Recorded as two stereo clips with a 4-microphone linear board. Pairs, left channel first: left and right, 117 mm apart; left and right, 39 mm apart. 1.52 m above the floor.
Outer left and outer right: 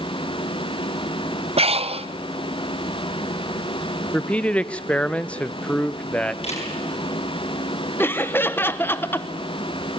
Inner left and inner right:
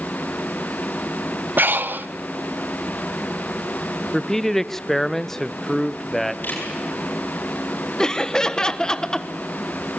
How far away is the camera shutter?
About 8 m.